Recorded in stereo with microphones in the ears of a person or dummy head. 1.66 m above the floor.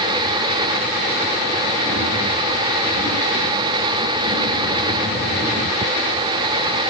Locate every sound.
Only background noise.